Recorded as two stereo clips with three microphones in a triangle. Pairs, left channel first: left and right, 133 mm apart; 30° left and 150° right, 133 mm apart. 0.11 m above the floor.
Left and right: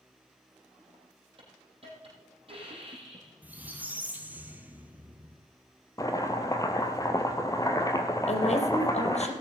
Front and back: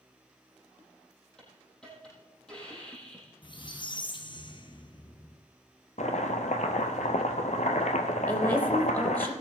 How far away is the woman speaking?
About 3.5 m.